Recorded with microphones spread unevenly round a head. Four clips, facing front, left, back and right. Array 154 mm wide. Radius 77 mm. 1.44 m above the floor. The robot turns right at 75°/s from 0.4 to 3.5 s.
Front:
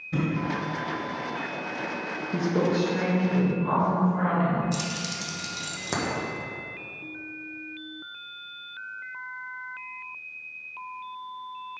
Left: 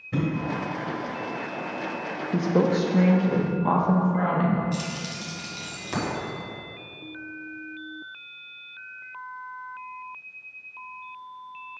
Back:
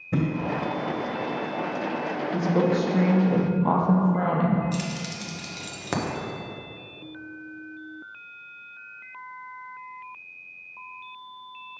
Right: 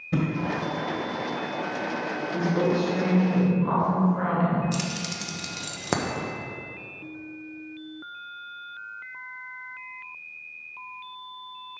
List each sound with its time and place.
0.1 s a thud: 145° right, 1.3 m
2.3 s a woman speaking: 65° left, 0.8 m; by 4.6 s 155° left, 0.8 m
4.7 s keys jangling: 85° right, 0.8 m